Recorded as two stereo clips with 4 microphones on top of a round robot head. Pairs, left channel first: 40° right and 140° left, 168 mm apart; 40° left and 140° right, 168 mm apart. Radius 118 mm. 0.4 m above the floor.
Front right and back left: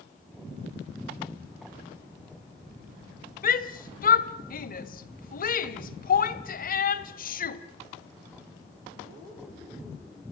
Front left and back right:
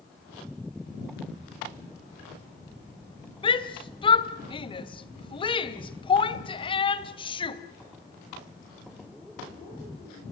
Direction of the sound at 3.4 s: 15° right.